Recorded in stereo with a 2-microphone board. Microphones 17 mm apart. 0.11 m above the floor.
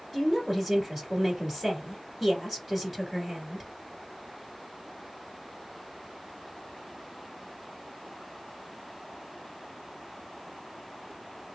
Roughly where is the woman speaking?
Centre.